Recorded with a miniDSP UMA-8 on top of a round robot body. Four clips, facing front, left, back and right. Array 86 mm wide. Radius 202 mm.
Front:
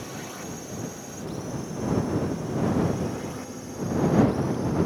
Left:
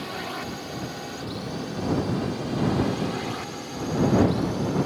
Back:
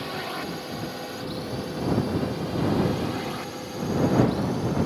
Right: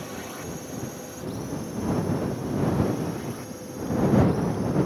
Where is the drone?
140° left; by 4.9 s 125° left.